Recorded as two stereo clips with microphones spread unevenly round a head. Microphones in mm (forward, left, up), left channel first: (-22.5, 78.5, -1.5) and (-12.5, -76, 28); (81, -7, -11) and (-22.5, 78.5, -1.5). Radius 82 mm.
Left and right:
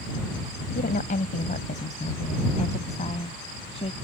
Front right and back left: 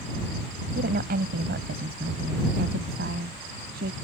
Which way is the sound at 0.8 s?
135° left.